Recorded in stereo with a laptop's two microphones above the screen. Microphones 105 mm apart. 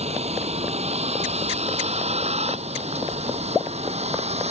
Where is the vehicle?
85° right; by 4.5 s 90° right.